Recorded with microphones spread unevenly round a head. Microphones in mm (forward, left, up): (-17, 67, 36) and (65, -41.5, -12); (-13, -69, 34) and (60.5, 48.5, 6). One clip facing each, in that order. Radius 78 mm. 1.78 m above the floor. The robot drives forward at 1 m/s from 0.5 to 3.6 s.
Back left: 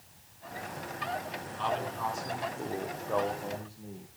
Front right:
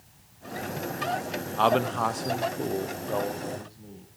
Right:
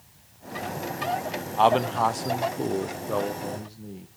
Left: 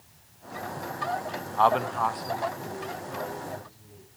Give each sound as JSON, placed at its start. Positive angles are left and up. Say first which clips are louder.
{"t": 1.6, "sound": "a man speaking", "louder": "front right 9 dB, right 3 dB", "azimuth_deg": -55, "distance_m": 1.2}